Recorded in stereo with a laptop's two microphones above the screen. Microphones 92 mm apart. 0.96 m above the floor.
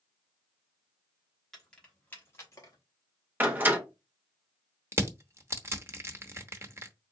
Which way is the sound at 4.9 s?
30° right (ahead or behind).